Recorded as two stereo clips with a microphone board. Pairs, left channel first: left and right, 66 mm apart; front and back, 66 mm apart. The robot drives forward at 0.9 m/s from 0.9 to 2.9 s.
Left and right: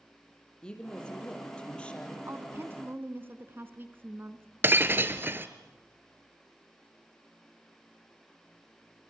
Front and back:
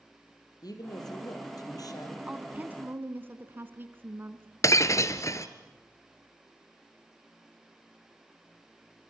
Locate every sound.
0.6 s a woman speaking: 15° left, 5.5 m
2.3 s a woman speaking: 110° right, 1.7 m; by 4.5 s 135° right, 1.9 m
4.6 s breaking glass: 35° right, 1.1 m